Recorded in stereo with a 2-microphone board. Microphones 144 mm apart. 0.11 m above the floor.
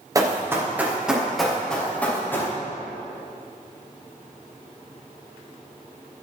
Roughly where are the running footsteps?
Right.